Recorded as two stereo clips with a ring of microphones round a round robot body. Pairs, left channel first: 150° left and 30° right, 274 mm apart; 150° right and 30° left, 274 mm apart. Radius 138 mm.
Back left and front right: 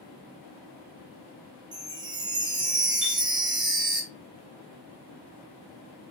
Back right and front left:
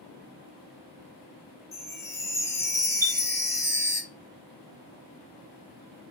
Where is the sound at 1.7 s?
85° right, 0.6 m.